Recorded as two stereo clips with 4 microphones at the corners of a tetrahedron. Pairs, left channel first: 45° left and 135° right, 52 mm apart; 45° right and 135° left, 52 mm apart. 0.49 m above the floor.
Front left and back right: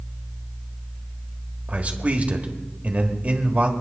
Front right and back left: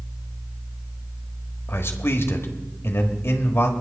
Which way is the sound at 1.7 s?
75° right.